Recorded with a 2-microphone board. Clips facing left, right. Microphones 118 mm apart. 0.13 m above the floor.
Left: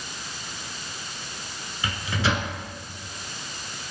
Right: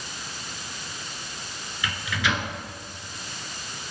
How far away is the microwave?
About 1.5 m.